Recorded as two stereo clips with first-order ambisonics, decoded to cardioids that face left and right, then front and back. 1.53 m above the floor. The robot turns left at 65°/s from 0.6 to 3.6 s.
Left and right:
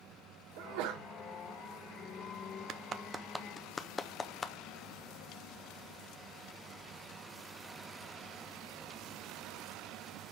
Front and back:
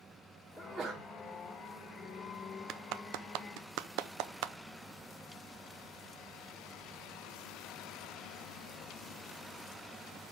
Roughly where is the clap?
Behind right.